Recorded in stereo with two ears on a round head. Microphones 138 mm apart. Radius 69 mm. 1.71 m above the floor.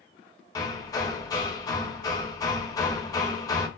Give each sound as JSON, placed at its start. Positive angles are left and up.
{"t": 0.6, "sound": "hammering", "side_deg": 25, "distance_m": 0.7}